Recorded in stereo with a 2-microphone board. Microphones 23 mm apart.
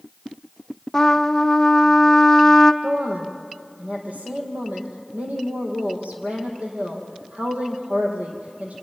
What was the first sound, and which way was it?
A trumpet, 15° left (ahead or behind).